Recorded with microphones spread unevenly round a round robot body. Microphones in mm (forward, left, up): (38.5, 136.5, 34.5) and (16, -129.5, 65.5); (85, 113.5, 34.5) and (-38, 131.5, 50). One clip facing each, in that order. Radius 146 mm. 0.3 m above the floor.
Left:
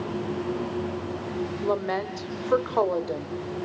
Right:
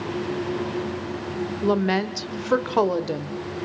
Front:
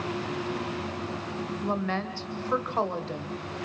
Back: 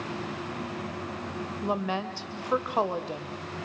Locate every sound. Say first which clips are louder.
1.6 s a woman speaking: right 7 dB, back 1 dB; 110° right, 1.3 m